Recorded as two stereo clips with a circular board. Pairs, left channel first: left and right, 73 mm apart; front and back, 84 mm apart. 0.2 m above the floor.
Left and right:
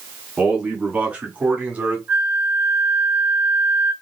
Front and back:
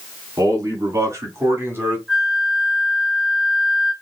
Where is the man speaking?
160° right, 2.0 m; by 2.0 s 145° right, 1.5 m.